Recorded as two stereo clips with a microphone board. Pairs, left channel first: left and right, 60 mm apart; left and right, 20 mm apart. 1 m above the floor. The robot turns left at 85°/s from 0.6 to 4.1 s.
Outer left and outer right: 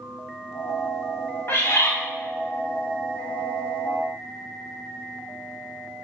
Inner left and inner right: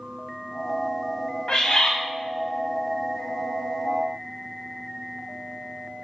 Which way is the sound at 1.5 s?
130° left.